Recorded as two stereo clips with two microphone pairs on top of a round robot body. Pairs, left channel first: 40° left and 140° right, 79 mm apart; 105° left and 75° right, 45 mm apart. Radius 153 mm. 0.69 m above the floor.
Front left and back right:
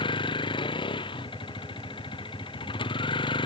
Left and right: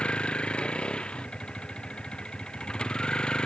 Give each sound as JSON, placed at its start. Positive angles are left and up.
{"t": 0.0, "sound": "a vehicle", "azimuth_deg": 40}